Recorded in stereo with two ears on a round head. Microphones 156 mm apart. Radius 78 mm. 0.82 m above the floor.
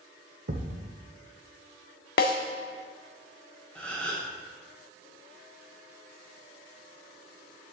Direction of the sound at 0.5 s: 50° right (ahead or behind).